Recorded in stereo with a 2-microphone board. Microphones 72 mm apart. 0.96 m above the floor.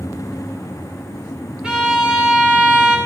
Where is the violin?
10° right (ahead or behind), 1.5 m.